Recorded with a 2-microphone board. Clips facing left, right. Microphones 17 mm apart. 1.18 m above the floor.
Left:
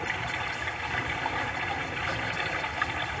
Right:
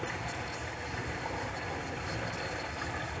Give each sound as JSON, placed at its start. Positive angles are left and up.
{"t": 0.0, "sound": "running water", "side_deg": 50, "distance_m": 3.0}